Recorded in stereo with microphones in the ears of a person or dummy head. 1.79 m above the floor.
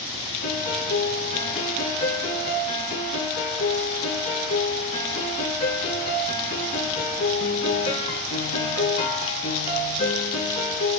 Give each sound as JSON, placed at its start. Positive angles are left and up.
{"t": 0.4, "sound": "a piano", "side_deg": 40, "distance_m": 4.0}